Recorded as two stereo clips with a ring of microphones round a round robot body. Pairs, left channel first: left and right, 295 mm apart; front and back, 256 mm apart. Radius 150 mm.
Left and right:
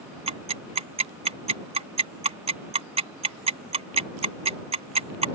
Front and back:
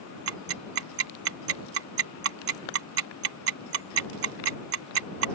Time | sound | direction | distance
0.3 | ticking | 155° right | ?